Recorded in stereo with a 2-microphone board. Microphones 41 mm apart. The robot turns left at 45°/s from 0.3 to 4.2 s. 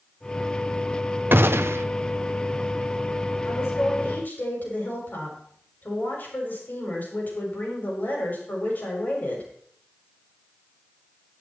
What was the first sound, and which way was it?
A gunshot, 55° right (ahead or behind).